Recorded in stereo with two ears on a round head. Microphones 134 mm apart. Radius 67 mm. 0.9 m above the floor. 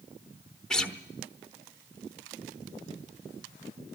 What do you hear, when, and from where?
0.7 s a guitar: 5° left (ahead or behind), 0.9 m